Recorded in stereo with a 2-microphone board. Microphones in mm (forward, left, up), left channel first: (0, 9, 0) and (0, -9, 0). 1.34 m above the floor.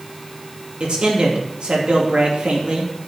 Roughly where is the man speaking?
Right.